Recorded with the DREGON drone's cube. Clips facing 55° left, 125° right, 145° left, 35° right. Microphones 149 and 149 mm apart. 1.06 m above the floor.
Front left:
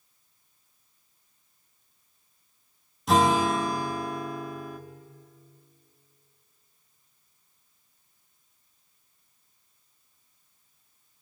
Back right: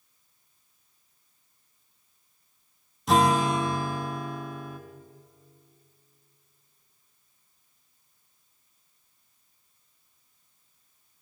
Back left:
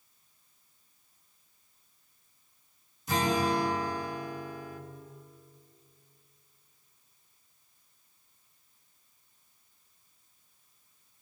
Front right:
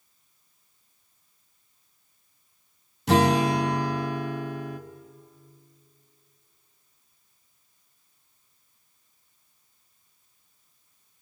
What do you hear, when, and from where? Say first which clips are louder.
3.1 s a guitar: even, front right 7 dB; 35° right, 1.3 m